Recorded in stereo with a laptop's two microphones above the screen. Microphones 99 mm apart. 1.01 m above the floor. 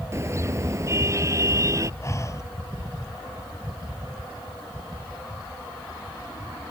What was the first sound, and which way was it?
A car horn, 30° right (ahead or behind).